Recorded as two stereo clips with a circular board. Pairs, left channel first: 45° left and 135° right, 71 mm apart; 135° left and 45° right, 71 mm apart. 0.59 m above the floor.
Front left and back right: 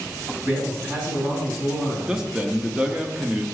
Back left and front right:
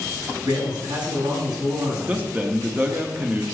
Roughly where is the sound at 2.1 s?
Right.